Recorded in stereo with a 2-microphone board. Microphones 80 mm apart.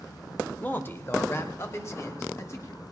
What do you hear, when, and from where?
0.6 s a man speaking: 20° left (ahead or behind), 0.8 m; by 2.8 s 35° left (ahead or behind), 2.5 m